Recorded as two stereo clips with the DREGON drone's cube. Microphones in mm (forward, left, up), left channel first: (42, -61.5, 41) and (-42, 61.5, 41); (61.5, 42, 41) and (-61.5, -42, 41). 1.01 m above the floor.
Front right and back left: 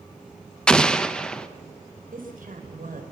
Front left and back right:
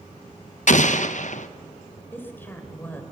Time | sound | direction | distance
0.7 | an explosion | 30° left | 0.9 m
2.1 | a woman speaking | 110° left | 3.5 m